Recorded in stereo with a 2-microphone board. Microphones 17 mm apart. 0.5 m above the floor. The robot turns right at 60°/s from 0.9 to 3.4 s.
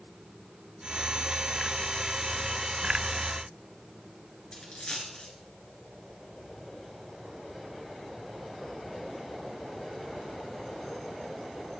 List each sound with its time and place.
4.5 s a dropped coin: 55° left (ahead or behind), 3.5 m